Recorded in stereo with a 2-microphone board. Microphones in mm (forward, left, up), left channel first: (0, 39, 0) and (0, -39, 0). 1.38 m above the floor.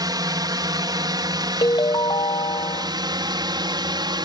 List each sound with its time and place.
0.0 s a drone: 60° right (ahead or behind); by 4.2 s 65° right (ahead or behind)
1.6 s a ringtone: 75° left (ahead or behind)